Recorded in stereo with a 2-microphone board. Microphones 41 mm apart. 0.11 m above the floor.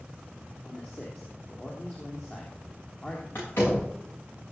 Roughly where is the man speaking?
Left.